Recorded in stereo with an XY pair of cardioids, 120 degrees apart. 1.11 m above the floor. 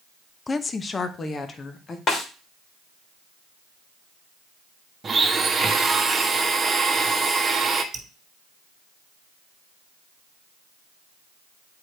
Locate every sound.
0.5 s a woman speaking: 25° left, 0.6 m; by 2.0 s 35° left, 1.6 m
2.1 s a snare drum: 45° left, 2.5 m
5.0 s a blender: 25° right, 1.3 m
7.9 s dripping: 35° right, 2 m